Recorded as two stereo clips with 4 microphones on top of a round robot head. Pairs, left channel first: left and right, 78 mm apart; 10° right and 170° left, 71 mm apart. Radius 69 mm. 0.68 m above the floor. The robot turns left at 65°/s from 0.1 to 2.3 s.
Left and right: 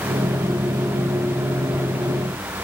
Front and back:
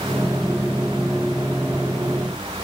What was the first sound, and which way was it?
Only background noise.